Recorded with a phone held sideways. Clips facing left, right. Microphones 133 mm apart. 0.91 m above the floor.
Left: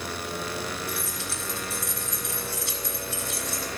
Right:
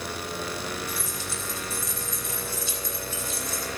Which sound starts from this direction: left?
Keys jangling, at 0.9 s.